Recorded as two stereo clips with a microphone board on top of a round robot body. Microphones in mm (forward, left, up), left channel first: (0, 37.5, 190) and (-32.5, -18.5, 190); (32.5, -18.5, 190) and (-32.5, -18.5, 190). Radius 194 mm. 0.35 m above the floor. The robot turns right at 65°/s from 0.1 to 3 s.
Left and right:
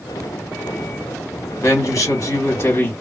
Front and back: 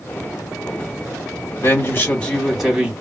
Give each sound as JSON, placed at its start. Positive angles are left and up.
{"t": 1.6, "sound": "a man speaking", "azimuth_deg": 30, "distance_m": 2.0}